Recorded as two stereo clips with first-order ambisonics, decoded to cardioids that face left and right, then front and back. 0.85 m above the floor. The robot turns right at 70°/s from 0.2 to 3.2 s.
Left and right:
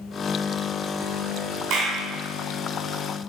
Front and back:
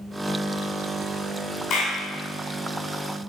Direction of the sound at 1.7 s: 50° right.